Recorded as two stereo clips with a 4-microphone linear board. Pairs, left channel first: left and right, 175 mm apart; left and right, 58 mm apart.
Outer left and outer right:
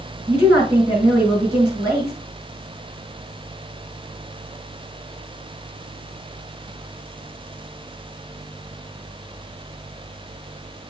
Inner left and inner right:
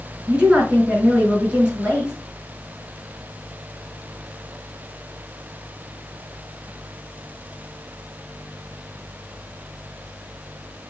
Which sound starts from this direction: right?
A woman speaking, at 0.3 s.